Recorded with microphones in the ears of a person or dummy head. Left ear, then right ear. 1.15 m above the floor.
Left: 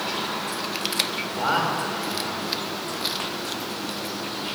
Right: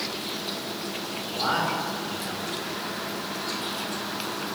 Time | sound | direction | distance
1.3 | a man speaking | 15° left (ahead or behind) | 5.5 m